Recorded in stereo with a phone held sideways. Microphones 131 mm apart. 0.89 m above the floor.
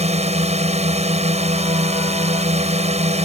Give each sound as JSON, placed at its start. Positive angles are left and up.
{"t": 0.0, "sound": "a drone", "side_deg": -60}